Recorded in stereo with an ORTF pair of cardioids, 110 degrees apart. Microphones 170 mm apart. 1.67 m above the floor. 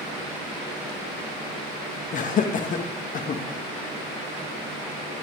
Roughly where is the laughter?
Ahead left.